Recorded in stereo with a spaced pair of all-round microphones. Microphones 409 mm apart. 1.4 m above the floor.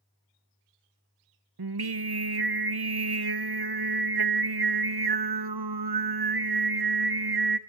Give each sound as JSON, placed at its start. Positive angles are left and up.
{"t": 1.6, "sound": "singing", "side_deg": -65, "distance_m": 0.7}